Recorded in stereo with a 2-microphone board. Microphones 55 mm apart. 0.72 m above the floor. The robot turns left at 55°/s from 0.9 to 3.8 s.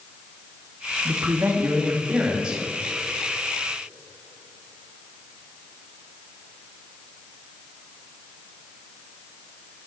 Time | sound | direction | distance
1.1 | a man speaking | 80° right | 1.4 m